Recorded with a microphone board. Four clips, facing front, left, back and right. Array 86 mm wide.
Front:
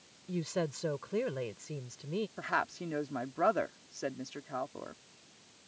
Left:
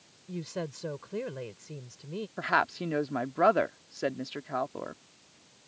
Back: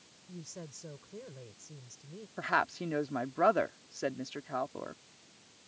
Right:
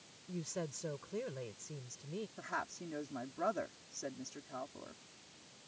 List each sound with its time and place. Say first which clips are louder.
0.3 s a woman speaking: left 6 dB, front 13 dB; 25° left
2.4 s a woman speaking: left 18 dB, back 8 dB; 100° left